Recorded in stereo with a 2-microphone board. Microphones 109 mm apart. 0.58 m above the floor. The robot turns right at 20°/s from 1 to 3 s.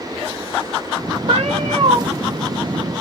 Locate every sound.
1.3 s a cat meowing: 70° right (ahead or behind), 0.6 m; by 2.0 s 55° right (ahead or behind), 0.6 m